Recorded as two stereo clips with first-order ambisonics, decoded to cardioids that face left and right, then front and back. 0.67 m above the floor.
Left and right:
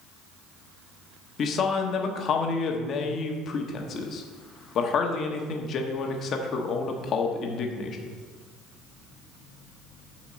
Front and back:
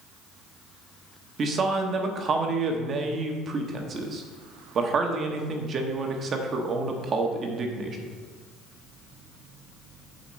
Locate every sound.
1.4 s a man speaking: 130° left, 1.1 m